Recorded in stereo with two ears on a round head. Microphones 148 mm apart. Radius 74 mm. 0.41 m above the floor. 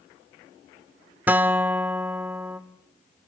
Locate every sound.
1.3 s a guitar: 10° right (ahead or behind), 0.6 m